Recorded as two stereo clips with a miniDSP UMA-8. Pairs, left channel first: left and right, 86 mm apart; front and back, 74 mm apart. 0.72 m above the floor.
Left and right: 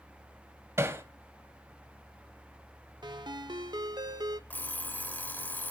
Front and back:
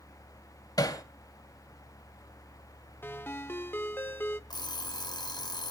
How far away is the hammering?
About 1.8 m.